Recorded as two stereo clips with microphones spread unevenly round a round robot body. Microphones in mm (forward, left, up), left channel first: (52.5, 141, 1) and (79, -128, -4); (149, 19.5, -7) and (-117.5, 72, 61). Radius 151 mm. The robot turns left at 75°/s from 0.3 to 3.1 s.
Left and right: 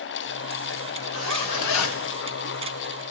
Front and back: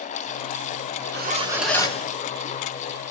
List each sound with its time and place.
1.1 s a zipper: 115° left, 4 m; by 2.1 s 45° left, 4 m